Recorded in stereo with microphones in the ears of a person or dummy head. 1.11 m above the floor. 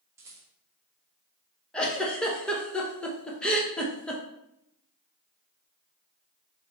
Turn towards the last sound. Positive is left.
turn(degrees=0)  # may be behind; listen again after turning